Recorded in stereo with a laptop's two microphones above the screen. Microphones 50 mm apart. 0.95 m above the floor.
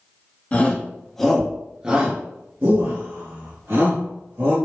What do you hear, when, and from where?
0.5 s a shout: 25° left (ahead or behind), 1.0 m; by 4.5 s 65° right (ahead or behind), 1.9 m